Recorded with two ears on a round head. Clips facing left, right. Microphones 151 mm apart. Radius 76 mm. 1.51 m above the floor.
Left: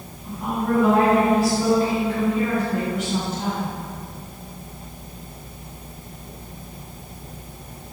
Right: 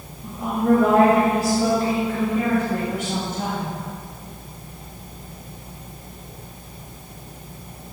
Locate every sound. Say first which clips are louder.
0.2 s a woman speaking: right 4 dB; 40° right (ahead or behind), 8.5 m; by 3.7 s 50° right (ahead or behind), 10.5 m